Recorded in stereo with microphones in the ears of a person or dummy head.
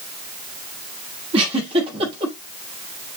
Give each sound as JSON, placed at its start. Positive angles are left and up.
{"t": 1.3, "sound": "a giggle", "side_deg": -30, "distance_m": 6.5}